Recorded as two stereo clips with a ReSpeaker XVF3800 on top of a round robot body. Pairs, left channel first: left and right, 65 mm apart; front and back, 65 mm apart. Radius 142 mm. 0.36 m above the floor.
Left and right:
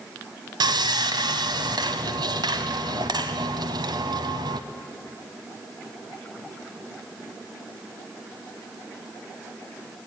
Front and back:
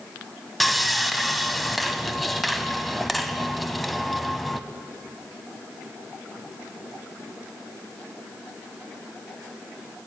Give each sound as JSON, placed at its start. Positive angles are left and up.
{"t": 0.6, "sound": "sawing", "azimuth_deg": -90, "distance_m": 0.8}